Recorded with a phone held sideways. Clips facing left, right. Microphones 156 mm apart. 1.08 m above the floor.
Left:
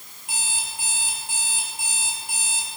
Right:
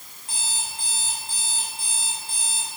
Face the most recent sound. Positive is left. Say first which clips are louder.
# left 1 dB
turn(degrees=10)  # may be behind; listen again after turning